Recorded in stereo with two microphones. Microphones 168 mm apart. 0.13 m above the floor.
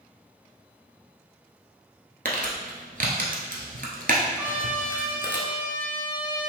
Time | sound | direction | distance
2.2 | crumpling | 60° right (ahead or behind) | 1.1 m
4.4 | a trumpet | 10° right (ahead or behind) | 1.1 m